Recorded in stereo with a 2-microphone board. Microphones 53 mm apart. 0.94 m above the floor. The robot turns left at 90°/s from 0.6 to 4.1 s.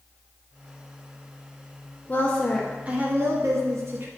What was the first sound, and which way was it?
A woman speaking, 40° left.